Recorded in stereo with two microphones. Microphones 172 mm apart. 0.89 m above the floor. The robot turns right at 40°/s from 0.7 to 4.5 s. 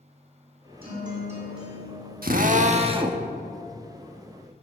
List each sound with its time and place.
0.8 s a guitar: 60° right, 7 m; by 2.1 s 5° right, 7 m
2.2 s a drill: 65° right, 1.2 m; by 3.2 s 20° right, 1.2 m